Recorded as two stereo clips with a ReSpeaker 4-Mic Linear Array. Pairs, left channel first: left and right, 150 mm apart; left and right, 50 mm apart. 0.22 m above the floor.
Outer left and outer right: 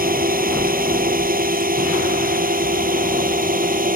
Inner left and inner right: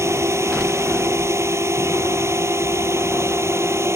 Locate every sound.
0.0 s a drone: 75° right (ahead or behind); by 4.0 s 70° right (ahead or behind)